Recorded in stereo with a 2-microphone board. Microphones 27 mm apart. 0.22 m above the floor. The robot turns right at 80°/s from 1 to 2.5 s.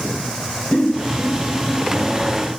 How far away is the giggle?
About 1.5 m.